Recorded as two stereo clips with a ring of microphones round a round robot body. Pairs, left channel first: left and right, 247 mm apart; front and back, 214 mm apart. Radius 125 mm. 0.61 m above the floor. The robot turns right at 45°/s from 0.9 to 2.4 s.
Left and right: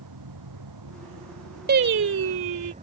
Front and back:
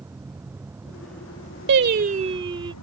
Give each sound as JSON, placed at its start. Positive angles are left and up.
{"t": 0.0, "sound": "a vehicle", "azimuth_deg": -100}
{"t": 1.7, "sound": "singing", "azimuth_deg": -140}